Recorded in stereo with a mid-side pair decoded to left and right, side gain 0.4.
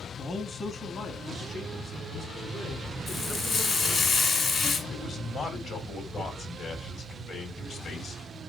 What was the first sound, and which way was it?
A man speaking, 50° left.